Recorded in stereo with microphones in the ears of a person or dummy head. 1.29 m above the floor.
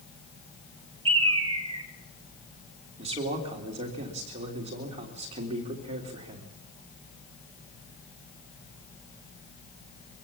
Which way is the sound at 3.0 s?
35° right (ahead or behind).